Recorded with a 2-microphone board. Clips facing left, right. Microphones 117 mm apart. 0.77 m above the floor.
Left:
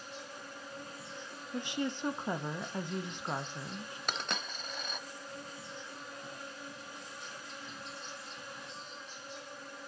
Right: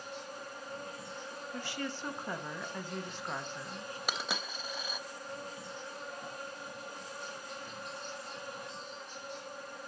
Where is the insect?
50° right (ahead or behind), 2.5 m.